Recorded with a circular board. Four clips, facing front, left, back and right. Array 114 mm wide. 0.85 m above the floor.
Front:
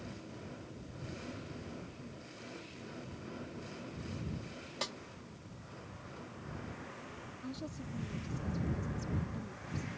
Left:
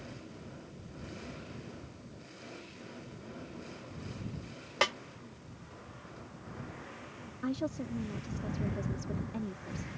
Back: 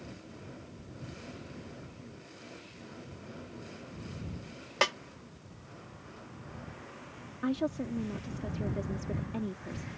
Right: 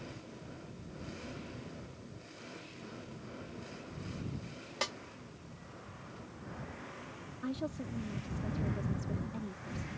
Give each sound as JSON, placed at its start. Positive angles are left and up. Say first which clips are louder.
{"t": 4.8, "sound": "a snare drum", "louder": "left 8 dB, back 13 dB", "azimuth_deg": 145}
{"t": 7.4, "sound": "a woman speaking", "louder": "left 4 dB, back 13 dB", "azimuth_deg": 165}